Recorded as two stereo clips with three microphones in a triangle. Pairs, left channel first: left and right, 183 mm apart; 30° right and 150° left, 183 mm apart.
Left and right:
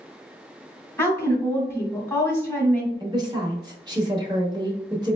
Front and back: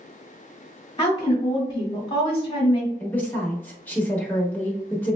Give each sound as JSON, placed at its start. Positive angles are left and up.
{"t": 1.0, "sound": "a woman speaking", "azimuth_deg": 15, "distance_m": 1.1}
{"t": 3.0, "sound": "a woman speaking", "azimuth_deg": -95, "distance_m": 0.9}